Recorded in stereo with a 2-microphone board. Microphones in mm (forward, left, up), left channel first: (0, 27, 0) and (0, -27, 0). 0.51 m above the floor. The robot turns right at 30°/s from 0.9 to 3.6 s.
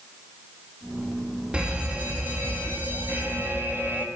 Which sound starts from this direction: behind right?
An alarm, at 1.5 s.